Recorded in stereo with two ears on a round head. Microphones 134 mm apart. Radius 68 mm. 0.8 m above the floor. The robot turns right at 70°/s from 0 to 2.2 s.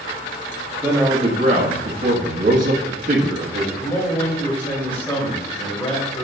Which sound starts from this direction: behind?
A man speaking, at 0.8 s.